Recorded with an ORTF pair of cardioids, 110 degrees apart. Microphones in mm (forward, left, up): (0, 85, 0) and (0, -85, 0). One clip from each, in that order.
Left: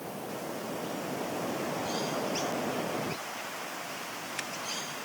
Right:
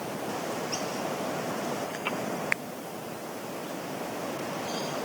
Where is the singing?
No singing in this recording.